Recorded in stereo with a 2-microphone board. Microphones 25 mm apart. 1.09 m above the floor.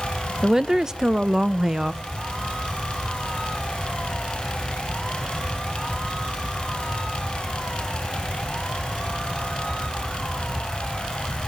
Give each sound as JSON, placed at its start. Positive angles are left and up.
{"t": 0.4, "sound": "a woman speaking", "side_deg": -25, "distance_m": 0.5}